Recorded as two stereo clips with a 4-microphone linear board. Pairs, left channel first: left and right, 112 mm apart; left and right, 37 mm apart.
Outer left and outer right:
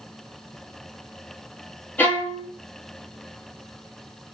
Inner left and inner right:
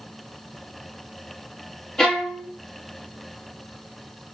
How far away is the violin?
About 0.8 m.